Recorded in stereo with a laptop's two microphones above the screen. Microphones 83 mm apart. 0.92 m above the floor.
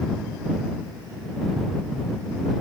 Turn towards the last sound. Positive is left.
No sound to turn to.